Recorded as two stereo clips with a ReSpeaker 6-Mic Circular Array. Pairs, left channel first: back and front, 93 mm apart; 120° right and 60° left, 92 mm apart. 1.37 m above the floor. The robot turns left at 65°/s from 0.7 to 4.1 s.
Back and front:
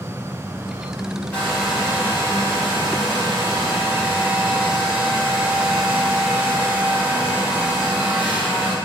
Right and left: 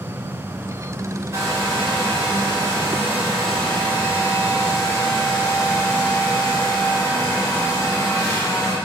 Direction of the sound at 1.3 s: 110° left.